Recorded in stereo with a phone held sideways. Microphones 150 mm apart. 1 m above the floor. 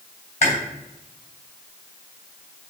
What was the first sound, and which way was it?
Chewing, 50° left (ahead or behind).